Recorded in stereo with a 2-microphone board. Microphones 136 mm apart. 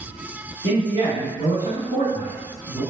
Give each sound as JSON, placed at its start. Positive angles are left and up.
{"t": 0.6, "sound": "a man speaking", "side_deg": -35, "distance_m": 1.8}